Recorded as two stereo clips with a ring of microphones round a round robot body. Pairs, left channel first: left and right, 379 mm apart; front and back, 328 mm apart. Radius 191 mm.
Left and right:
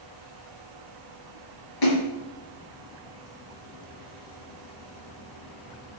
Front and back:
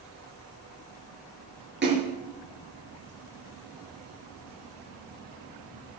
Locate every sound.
1.8 s a splash: 120° left, 5.5 m